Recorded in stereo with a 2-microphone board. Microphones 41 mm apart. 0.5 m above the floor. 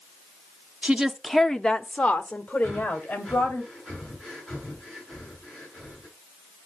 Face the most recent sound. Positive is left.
turn(degrees=5)  # may be behind; listen again after turning